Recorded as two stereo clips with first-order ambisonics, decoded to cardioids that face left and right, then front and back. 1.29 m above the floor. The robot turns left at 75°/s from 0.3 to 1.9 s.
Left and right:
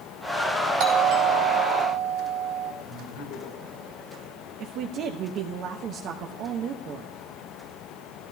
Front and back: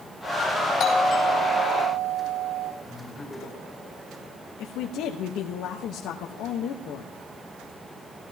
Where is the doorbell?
55° right, 3.5 m; by 2.7 s 135° right, 3.5 m.